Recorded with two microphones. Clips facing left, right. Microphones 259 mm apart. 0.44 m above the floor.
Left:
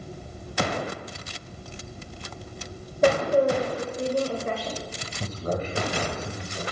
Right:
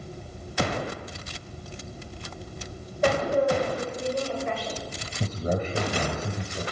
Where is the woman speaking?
45° left (ahead or behind), 1.8 m.